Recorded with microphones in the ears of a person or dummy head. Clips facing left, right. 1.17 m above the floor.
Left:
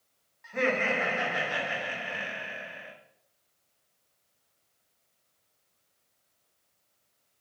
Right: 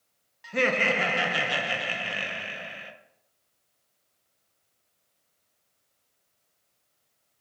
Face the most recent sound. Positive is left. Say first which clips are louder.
# right 2 dB
turn(degrees=-50)  # may be behind; listen again after turning